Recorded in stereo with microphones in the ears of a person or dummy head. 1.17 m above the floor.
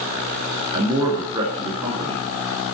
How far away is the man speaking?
About 1.7 m.